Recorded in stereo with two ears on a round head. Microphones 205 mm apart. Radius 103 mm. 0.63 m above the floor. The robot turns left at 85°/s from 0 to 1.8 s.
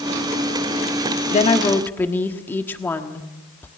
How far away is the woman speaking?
About 1.4 m.